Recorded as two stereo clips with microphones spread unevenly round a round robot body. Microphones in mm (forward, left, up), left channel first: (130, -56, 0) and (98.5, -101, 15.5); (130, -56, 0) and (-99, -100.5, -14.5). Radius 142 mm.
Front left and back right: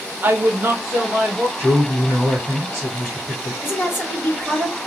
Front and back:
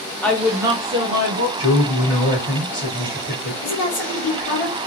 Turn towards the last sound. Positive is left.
turn(degrees=20)